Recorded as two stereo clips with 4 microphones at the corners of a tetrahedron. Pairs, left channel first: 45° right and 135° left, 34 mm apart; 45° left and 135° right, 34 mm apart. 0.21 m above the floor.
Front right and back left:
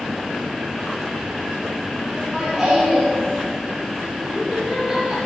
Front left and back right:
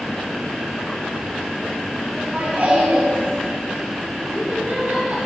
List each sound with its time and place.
2.1 s laughter: 145° right, 2.5 m; by 5.2 s 150° right, 4 m